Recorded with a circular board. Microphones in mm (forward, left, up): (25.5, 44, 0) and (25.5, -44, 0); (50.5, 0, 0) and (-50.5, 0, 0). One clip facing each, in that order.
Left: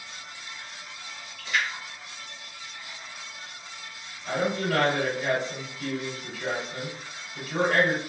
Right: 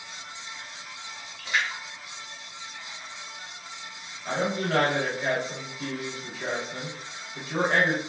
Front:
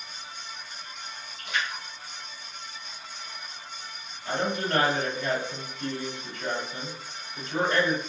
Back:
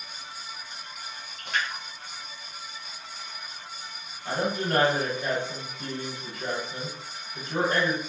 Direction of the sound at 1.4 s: 155° right.